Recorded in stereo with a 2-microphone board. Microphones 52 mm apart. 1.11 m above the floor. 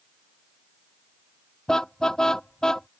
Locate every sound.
1.7 s a car horn: 10° left (ahead or behind)